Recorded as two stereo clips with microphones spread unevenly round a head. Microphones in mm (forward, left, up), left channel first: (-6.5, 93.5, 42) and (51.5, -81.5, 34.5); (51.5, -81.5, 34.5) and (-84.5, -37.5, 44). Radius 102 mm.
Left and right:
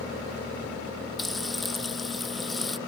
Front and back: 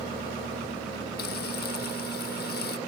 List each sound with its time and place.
1.2 s frying: 20° left